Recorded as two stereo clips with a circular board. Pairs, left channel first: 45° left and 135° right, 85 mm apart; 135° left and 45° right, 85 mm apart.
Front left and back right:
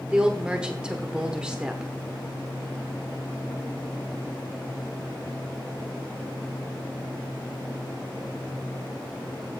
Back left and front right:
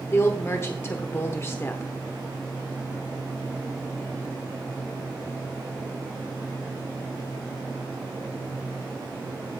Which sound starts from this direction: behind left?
A woman speaking, at 0.1 s.